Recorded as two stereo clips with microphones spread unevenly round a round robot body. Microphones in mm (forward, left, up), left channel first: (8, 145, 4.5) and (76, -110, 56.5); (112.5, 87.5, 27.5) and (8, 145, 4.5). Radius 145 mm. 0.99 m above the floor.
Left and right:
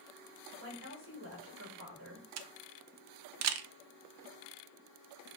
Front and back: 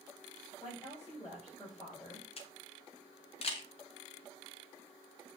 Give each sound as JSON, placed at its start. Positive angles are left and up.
{"t": 0.6, "sound": "a woman speaking", "azimuth_deg": -110, "distance_m": 5.0}
{"t": 2.4, "sound": "a camera shutter", "azimuth_deg": -65, "distance_m": 0.7}